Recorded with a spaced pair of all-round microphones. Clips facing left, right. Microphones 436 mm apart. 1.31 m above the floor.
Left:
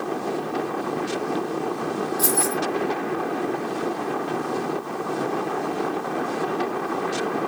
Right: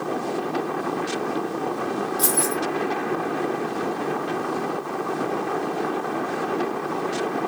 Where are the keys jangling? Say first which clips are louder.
Even; 50° right (ahead or behind), 1.0 m.